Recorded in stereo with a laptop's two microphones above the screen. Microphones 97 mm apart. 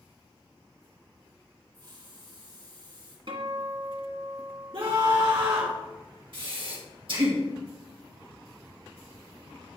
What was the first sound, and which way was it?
A hiss, 55° right (ahead or behind).